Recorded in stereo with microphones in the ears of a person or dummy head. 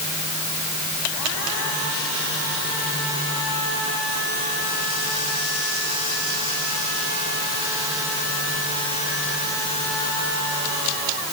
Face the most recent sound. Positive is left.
No sound to turn to.